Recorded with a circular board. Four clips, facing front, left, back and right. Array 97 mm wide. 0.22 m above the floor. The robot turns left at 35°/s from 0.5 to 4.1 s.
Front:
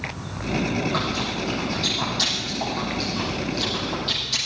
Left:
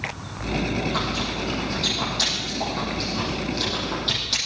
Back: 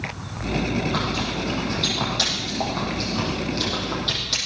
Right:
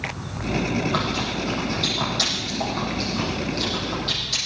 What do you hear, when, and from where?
0.4 s chewing: 95° right, 7 m; by 4.4 s 140° left, 7 m